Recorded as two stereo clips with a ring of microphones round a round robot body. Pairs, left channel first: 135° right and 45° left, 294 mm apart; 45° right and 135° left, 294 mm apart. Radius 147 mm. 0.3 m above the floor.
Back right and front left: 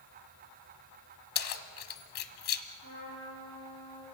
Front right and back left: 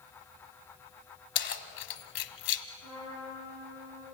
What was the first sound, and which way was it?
Keys jangling, 95° right.